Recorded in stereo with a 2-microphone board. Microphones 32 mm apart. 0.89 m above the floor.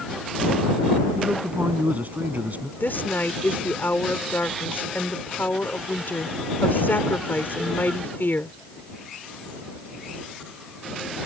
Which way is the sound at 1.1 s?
55° right (ahead or behind).